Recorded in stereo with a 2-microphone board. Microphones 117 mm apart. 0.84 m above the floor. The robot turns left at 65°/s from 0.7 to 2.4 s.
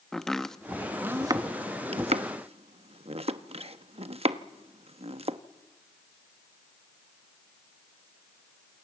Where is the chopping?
5° left (ahead or behind), 0.9 m; by 5.4 s 60° right (ahead or behind), 0.9 m.